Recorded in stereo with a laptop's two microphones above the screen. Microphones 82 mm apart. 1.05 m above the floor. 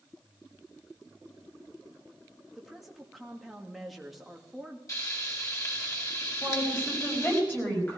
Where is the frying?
40° left (ahead or behind), 5 m.